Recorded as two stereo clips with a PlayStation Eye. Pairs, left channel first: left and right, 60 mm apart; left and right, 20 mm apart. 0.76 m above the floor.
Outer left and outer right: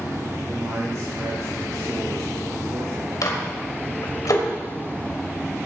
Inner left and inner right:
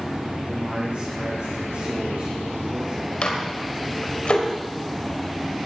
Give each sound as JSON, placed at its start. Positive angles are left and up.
{"t": 0.5, "sound": "a man speaking", "side_deg": -70, "distance_m": 5.0}
{"t": 3.2, "sound": "a microwave", "side_deg": 70, "distance_m": 2.5}